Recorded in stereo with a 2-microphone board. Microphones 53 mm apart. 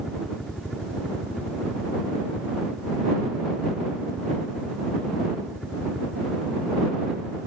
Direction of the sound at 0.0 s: Centre (ahead or behind).